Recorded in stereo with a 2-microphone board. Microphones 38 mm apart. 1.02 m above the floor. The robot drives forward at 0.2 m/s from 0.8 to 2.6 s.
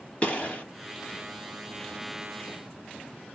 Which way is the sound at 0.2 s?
35° left (ahead or behind).